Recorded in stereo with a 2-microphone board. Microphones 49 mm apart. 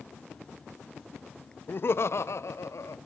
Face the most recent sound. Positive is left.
turn(degrees=70)  # may be behind; listen again after turning